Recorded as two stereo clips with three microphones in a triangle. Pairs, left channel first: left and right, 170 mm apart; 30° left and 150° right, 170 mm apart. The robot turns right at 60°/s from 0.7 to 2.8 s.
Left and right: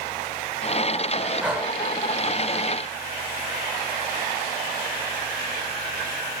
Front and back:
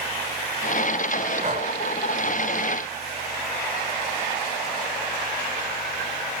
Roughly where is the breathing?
Behind.